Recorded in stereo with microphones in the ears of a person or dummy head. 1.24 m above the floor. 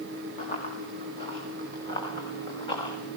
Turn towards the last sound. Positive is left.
turn(degrees=25)  # may be behind; listen again after turning